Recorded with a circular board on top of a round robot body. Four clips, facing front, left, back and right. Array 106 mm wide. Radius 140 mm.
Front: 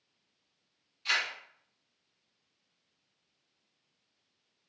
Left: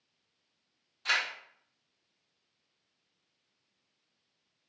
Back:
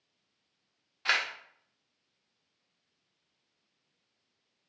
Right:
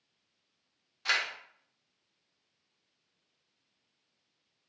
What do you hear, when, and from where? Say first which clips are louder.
1.1 s a camera shutter: even, back 3 dB; 170° right, 0.6 m